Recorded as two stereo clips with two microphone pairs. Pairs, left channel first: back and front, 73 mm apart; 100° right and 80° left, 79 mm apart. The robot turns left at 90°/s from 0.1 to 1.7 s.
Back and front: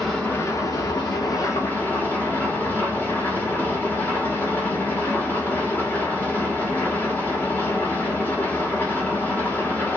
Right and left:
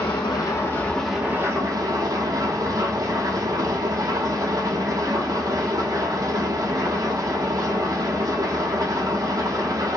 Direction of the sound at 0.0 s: 100° right.